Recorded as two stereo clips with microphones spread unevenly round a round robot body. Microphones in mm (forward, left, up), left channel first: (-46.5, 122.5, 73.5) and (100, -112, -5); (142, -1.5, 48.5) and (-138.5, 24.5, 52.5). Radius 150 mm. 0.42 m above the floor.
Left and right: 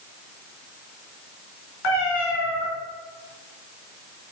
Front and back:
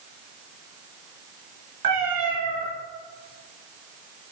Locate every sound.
1.8 s a cat meowing: 165° left, 3 m